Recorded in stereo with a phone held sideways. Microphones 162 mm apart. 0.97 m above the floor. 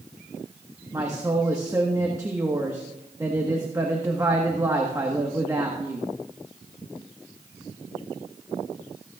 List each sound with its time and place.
0.9 s a woman speaking: 20° right (ahead or behind), 1.3 m